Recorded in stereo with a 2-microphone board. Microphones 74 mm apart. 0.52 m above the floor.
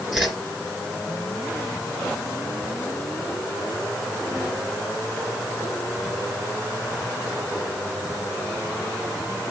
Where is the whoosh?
10° right (ahead or behind), 2 m.